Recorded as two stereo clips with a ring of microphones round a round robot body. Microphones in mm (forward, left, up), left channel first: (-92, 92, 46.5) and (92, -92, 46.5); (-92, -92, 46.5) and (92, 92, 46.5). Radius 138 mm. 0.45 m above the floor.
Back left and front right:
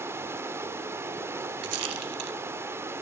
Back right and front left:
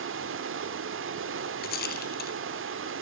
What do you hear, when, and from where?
0.0 s running water: 35° left, 1.2 m
1.6 s a rattle: 80° right, 1.6 m